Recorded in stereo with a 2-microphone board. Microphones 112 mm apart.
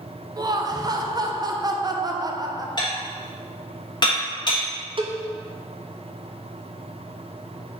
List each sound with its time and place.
0.4 s laughter: 35° right (ahead or behind), 0.5 m
2.8 s dishes clattering: 40° left (ahead or behind), 1.2 m
5.0 s a cowbell: 50° right (ahead or behind), 0.6 m